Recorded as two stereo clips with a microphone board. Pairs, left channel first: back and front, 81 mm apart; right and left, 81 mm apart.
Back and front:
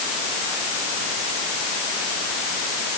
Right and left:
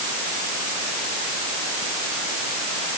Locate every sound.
Only background noise.